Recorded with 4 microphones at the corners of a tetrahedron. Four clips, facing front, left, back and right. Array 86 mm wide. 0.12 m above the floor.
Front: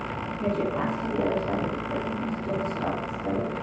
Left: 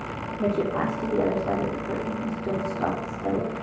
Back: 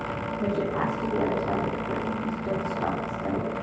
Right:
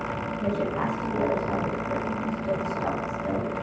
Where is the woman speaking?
110° left, 5 m.